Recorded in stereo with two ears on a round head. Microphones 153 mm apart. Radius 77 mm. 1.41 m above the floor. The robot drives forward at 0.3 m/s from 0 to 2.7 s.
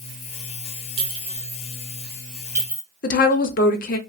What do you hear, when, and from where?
1.0 s a clink: 30° right (ahead or behind), 0.7 m; by 2.8 s 15° right (ahead or behind), 1.2 m
3.0 s a woman speaking: 50° left (ahead or behind), 0.6 m